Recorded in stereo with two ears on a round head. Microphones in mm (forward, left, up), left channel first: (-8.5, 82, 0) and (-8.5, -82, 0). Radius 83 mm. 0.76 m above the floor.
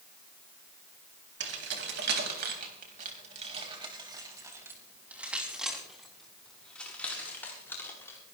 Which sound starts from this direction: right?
Keys jangling, at 1.4 s.